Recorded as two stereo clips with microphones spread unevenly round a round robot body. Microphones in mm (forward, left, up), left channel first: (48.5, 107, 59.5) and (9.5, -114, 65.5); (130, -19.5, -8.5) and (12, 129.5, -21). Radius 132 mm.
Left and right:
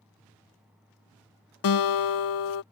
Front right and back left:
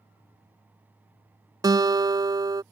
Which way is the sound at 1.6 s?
55° left.